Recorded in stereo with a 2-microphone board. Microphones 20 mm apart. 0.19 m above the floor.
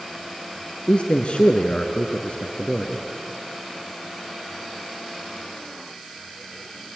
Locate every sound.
0.9 s a man speaking: 60° left (ahead or behind), 1.8 m